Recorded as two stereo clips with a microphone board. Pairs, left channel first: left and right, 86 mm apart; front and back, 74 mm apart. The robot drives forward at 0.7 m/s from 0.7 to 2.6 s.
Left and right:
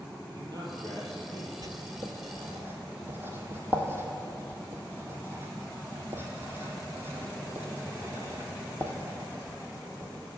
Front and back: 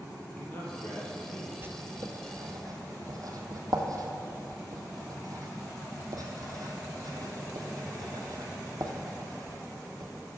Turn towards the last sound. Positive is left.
turn(degrees=-150)